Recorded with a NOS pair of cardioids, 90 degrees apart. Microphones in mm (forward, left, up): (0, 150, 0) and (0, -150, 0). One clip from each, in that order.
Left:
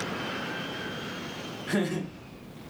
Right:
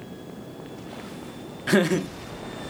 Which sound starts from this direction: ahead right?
Laughter, at 1.7 s.